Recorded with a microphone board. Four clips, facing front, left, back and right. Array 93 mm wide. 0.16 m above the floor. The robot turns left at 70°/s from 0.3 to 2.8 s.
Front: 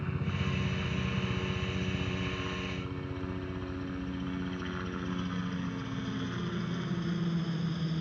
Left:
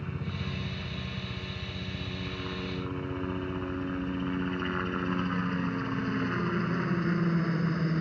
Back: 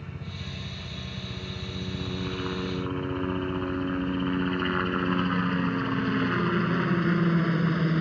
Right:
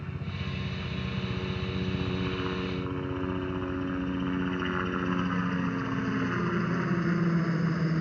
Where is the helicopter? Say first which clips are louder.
Left 1 dB, front 5 dB; 20° left; by 8.0 s 175° right.